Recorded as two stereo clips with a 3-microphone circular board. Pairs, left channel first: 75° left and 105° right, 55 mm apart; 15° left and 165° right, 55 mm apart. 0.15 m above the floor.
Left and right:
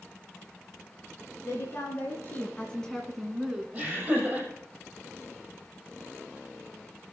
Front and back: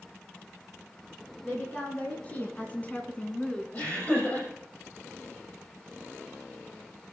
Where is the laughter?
35° right, 5 m.